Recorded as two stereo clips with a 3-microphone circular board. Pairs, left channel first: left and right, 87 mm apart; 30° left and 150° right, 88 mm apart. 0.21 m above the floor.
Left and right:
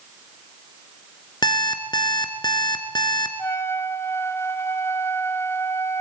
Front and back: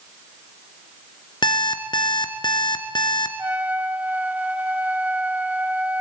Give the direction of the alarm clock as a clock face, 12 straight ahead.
10 o'clock.